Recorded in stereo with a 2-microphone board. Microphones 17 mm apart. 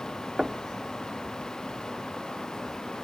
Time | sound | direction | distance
0.4 | knocking | 35° right (ahead or behind) | 0.8 m